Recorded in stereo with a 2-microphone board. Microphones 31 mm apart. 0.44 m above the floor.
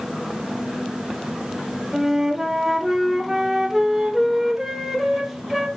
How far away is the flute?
About 0.7 m.